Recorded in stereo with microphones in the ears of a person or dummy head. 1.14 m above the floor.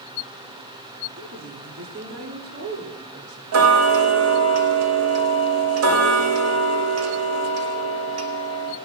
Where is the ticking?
80° right, 1.5 m.